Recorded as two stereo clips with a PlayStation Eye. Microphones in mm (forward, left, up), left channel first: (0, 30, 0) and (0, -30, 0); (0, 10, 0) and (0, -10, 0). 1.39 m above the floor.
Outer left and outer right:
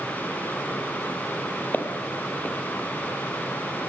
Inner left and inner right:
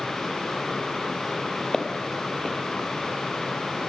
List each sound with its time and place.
1.7 s footsteps: 30° left (ahead or behind), 1.7 m